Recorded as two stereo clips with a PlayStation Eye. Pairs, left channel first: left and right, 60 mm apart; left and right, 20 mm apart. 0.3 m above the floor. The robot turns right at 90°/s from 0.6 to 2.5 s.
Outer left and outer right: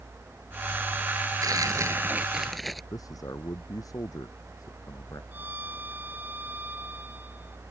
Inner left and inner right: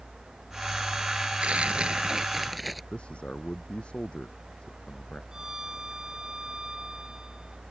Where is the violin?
35° right (ahead or behind).